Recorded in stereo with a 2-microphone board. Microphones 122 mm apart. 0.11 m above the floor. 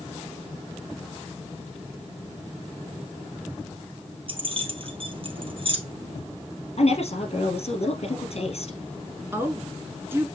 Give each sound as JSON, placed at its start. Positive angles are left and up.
{"t": 4.3, "sound": "keys jangling", "side_deg": -45, "distance_m": 2.0}
{"t": 6.8, "sound": "a woman speaking", "side_deg": 55, "distance_m": 3.0}
{"t": 9.3, "sound": "a woman speaking", "side_deg": -20, "distance_m": 1.1}